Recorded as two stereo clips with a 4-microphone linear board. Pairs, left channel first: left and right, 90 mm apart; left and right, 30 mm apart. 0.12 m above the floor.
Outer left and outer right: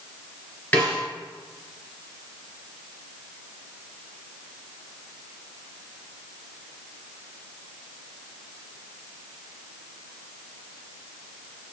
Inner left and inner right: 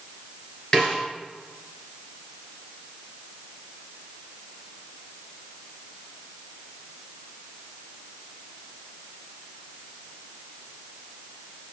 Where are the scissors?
No scissors in this recording.